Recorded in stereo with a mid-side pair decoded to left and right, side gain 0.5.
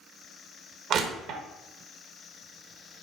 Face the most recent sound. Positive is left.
turn(degrees=-65)